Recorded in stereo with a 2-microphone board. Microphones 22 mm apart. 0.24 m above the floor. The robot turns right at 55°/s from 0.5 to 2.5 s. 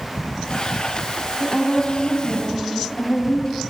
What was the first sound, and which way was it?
A woman speaking, 25° left.